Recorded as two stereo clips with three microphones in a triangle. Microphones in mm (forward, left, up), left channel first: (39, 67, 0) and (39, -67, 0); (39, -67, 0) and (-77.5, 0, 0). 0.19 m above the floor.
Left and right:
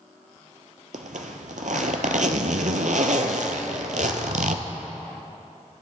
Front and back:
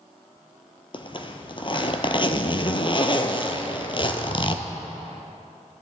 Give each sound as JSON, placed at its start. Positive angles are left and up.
{"t": 0.9, "sound": "a zipper", "azimuth_deg": -80, "distance_m": 0.7}